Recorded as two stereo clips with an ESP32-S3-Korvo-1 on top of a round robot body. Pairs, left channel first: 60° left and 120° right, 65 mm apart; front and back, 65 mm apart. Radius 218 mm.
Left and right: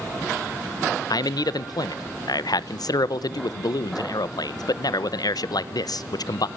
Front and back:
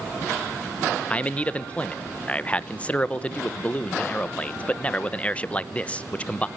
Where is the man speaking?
70° left, 1.3 m.